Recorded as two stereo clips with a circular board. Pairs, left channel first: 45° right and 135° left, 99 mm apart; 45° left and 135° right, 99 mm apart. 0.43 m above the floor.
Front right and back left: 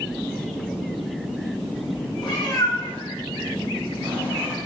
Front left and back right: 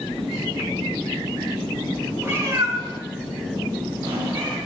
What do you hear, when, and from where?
2.2 s a cat meowing: 70° right, 0.8 m; by 4.6 s 165° right, 1.5 m